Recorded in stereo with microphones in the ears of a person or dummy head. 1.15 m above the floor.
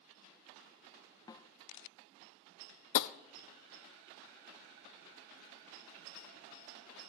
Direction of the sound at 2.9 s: 70° left (ahead or behind).